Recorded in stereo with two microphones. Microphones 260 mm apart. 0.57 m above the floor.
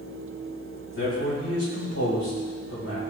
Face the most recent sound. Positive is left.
turn(degrees=60)  # may be behind; listen again after turning